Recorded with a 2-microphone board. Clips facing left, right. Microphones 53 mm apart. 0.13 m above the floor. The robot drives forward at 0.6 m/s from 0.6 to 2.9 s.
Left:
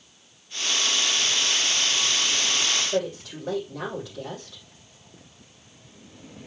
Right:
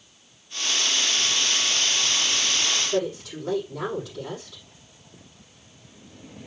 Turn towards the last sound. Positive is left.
turn(degrees=5)  # may be behind; listen again after turning